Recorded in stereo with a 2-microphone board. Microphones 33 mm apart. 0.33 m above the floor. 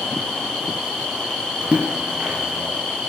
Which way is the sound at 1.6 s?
35° right (ahead or behind).